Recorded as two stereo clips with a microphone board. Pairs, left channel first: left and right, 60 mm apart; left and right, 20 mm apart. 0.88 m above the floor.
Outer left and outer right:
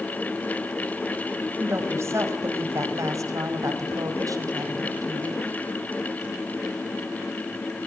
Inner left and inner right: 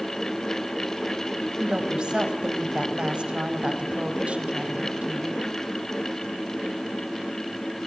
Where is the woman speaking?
45° right (ahead or behind), 4.5 m; by 5.5 s 80° right, 5.5 m.